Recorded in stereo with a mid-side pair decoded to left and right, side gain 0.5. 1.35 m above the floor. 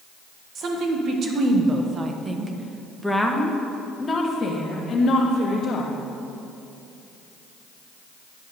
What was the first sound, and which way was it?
A woman speaking, 65° right.